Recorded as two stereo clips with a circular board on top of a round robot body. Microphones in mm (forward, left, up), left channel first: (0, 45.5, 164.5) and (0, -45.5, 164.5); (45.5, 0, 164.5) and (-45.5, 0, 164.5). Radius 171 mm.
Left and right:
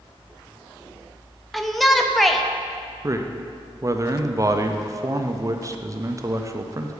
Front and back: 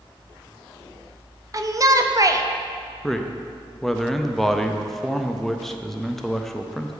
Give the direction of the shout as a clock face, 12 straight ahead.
6 o'clock.